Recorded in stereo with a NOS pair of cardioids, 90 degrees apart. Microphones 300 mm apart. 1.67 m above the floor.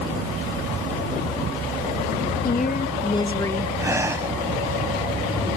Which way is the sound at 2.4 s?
30° left.